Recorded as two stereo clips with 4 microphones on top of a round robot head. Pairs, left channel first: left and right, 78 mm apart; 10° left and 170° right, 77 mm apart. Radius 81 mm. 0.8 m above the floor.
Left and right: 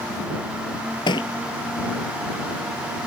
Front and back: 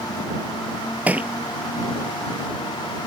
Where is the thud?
120° left.